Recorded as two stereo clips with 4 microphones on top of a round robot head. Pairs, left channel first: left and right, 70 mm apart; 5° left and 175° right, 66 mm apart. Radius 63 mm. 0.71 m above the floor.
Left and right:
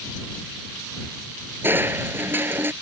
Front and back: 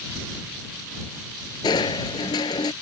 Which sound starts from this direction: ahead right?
Crushing, at 1.6 s.